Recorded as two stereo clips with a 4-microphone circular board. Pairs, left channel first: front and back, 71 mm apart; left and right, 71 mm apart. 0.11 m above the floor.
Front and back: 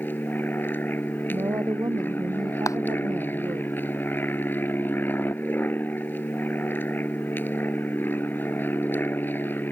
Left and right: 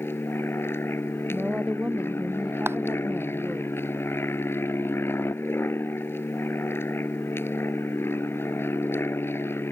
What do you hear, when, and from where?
0.0 s an aircraft: 50° left
1.3 s a woman speaking: 165° right
2.7 s a clap: 35° right